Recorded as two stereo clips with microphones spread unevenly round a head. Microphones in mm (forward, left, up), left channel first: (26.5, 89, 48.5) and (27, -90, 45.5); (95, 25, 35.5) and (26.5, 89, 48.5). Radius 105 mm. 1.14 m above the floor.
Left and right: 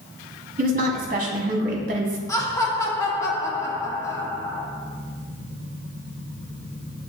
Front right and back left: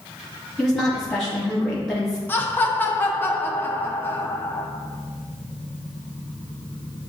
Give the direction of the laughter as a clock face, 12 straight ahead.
11 o'clock.